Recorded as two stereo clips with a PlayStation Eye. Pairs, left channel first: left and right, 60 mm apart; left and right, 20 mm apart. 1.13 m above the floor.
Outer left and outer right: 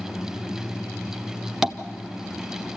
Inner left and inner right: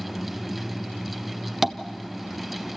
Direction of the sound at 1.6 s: 5° right (ahead or behind).